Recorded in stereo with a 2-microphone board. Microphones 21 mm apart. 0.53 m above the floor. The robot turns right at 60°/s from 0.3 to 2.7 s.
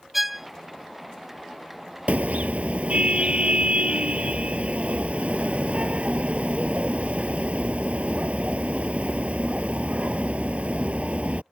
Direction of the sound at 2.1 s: 105° right.